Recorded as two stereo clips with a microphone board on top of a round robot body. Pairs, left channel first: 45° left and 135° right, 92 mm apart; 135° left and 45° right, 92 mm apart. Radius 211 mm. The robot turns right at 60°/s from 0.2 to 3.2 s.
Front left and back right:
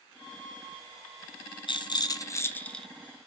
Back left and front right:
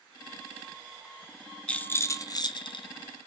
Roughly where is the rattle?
Ahead left.